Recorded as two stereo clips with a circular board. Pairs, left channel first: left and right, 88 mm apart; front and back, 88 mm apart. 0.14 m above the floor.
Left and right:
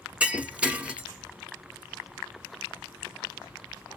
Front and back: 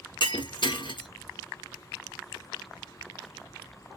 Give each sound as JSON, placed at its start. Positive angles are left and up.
{"t": 0.2, "sound": "breaking glass", "azimuth_deg": -15, "distance_m": 1.3}